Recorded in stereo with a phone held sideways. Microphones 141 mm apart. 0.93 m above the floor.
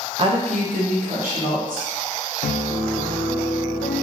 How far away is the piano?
About 0.5 m.